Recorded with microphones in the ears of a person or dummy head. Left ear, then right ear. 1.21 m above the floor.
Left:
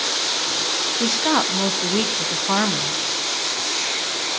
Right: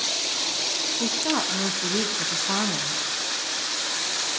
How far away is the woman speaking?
About 0.9 m.